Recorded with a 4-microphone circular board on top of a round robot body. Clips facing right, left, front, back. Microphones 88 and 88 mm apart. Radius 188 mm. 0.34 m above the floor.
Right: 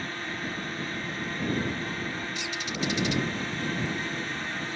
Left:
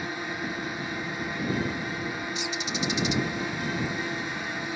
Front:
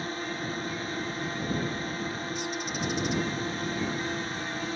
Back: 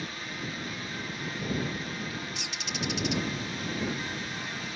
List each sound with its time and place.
0.0 s a drone: 20° left
2.4 s a bird: 160° left